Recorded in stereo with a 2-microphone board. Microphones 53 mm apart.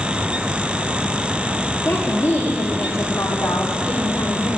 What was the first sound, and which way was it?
A woman speaking, 55° left (ahead or behind).